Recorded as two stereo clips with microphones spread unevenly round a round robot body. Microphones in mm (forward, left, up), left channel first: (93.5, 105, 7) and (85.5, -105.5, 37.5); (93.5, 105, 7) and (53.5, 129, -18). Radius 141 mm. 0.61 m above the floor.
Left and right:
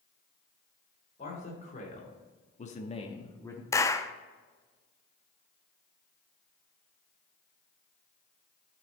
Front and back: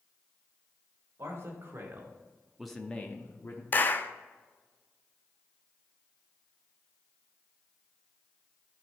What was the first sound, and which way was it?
A man speaking, 150° left.